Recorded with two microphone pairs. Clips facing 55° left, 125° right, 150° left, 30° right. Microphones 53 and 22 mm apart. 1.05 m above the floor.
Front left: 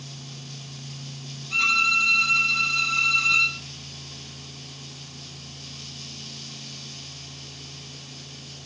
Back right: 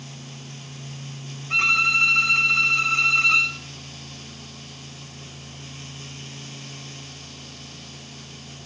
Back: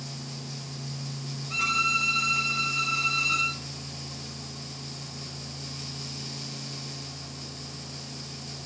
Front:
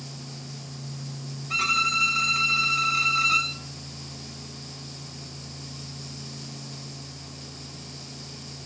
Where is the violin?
85° right, 5 m.